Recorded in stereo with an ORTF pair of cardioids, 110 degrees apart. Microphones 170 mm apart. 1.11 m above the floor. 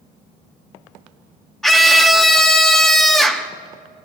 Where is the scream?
Straight ahead, 1.8 m.